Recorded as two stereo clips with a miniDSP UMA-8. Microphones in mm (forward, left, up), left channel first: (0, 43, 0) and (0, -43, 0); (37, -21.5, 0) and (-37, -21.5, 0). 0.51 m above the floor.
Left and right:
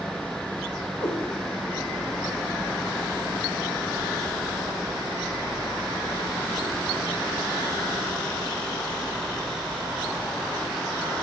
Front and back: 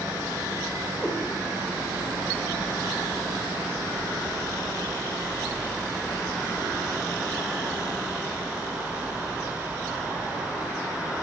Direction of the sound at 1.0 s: 90° left.